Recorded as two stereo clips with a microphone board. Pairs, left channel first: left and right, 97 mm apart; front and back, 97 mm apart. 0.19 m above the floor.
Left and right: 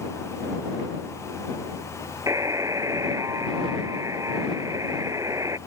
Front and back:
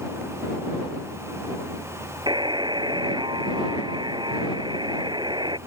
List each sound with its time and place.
2.3 s a buzzer: 145° right